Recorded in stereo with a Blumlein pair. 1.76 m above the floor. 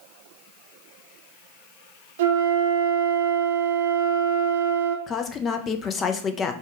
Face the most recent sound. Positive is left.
turn(degrees=25)